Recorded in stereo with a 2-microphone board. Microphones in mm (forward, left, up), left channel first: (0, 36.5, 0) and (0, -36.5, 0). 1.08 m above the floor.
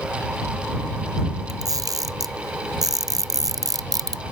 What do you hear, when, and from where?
1.5 s a camera shutter: 60° right (ahead or behind)